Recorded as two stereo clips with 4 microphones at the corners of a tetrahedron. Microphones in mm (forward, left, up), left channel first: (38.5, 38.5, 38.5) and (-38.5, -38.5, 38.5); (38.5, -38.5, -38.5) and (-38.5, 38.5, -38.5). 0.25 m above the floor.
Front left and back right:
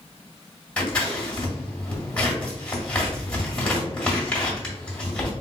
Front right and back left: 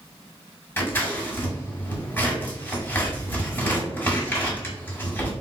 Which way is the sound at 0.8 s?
20° right.